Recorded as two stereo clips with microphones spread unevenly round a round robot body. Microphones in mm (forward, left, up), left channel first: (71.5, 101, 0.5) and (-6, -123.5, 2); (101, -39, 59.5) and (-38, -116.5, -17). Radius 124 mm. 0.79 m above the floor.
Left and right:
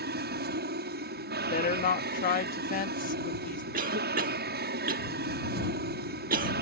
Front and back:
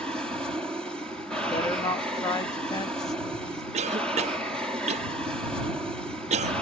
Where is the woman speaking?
120° left.